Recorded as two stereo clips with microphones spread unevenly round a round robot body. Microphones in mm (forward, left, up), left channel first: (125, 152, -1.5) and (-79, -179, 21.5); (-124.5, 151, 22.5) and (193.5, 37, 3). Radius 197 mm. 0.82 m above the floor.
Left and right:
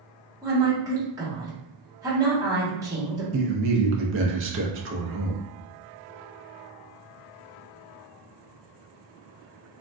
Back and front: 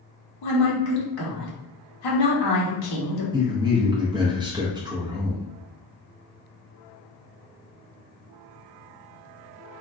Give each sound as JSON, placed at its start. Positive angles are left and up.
{"t": 0.4, "sound": "a woman speaking", "azimuth_deg": 155, "distance_m": 1.3}
{"t": 3.3, "sound": "a man speaking", "azimuth_deg": -85, "distance_m": 0.6}